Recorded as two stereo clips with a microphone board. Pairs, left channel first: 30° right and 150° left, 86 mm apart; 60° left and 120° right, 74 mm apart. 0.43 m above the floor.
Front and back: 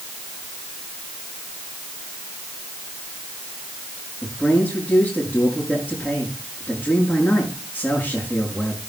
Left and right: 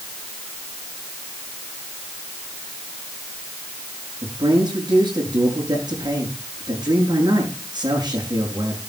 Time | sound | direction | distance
4.2 | a man speaking | 100° right | 6 m